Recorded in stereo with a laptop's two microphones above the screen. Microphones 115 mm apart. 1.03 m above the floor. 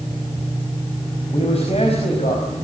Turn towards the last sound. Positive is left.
turn(degrees=60)  # may be behind; listen again after turning